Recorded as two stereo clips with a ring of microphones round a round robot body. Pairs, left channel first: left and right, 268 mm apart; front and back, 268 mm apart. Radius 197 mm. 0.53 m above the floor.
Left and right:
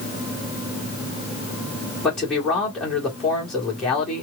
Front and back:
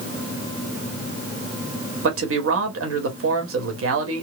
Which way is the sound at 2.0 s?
Straight behind.